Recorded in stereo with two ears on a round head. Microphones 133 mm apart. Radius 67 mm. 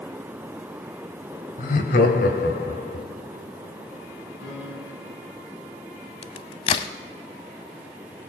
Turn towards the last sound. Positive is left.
turn(degrees=40)  # may be behind; listen again after turning